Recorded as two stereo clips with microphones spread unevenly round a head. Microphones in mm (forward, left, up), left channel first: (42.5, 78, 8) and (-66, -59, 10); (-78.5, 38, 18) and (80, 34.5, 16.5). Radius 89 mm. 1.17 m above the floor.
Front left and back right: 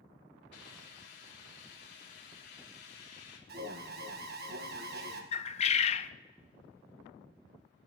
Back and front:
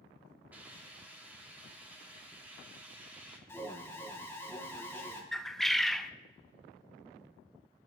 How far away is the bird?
About 0.6 m.